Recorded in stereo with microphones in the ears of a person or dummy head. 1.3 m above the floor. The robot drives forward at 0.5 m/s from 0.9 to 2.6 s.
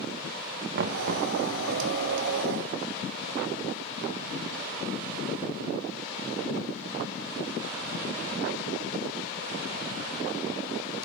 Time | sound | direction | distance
0.8 | knocking | 55° right (ahead or behind) | 0.5 m